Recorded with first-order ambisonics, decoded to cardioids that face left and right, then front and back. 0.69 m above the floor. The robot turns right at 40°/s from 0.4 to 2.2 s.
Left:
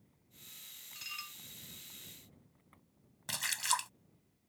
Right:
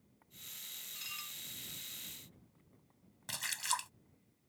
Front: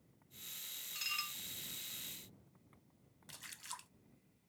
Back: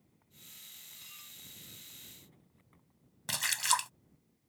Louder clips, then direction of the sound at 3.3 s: Left 3 dB, back 20 dB; 165° left.